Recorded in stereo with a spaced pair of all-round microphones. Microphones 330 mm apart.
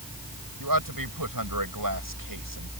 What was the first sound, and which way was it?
A man speaking, 85° right.